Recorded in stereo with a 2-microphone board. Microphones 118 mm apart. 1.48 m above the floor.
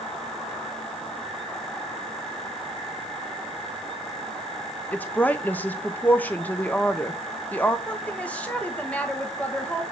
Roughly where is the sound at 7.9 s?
Centre.